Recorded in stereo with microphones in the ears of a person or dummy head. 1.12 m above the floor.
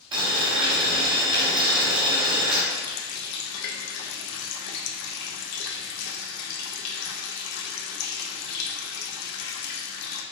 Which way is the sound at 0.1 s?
30° right (ahead or behind).